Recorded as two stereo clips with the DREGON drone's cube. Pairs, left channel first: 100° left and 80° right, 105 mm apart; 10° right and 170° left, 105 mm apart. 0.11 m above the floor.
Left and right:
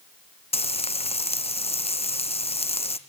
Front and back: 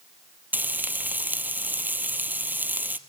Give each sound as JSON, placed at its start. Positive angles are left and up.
{"t": 0.5, "sound": "frying", "azimuth_deg": 95, "distance_m": 0.8}